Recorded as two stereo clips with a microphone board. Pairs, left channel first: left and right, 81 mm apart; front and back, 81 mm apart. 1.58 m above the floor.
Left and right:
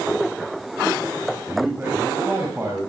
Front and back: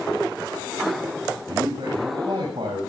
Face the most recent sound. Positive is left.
turn(degrees=-160)